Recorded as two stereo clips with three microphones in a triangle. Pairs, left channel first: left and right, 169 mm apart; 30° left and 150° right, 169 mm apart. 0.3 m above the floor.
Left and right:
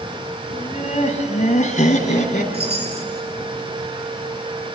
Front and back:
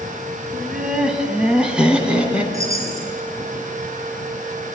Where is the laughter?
125° left, 2.5 m.